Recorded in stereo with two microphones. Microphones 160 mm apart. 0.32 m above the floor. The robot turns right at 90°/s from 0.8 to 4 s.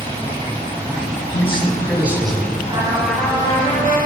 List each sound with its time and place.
0.0 s running water: 35° right, 4.5 m; by 4.1 s 105° right, 4.5 m
1.3 s a man speaking: 125° left, 2 m; by 2.6 s 120° right, 2 m
2.7 s a trumpet: 35° right, 2 m; by 4.0 s 80° left, 2 m